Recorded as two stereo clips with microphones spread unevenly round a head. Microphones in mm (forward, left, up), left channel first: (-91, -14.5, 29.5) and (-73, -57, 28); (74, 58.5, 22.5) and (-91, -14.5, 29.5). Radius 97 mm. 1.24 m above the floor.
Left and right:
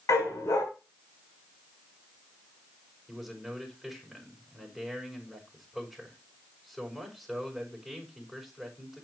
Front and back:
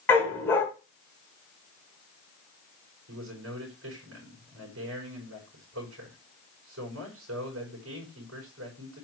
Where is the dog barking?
105° left, 3 m.